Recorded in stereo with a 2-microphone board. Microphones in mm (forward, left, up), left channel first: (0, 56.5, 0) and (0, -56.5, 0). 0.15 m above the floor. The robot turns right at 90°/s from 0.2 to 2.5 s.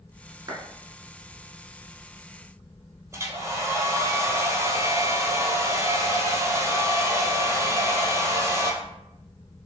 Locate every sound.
0.5 s a clap: 35° right (ahead or behind), 1.3 m; by 0.6 s 40° right (ahead or behind), 1.3 m
3.1 s a hair dryer: 25° right (ahead or behind), 0.8 m